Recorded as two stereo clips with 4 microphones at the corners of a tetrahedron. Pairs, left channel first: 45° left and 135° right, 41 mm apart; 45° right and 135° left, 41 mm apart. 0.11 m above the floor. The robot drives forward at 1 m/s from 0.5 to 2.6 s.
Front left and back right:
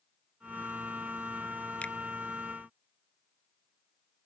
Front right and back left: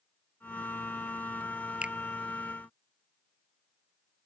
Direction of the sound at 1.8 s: 85° left.